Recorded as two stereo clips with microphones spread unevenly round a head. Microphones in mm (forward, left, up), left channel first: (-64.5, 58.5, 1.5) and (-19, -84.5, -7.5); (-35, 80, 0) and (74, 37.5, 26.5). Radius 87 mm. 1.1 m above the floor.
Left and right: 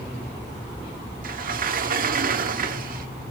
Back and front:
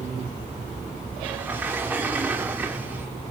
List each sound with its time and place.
1.2 s a sliding door: 95° right, 1.2 m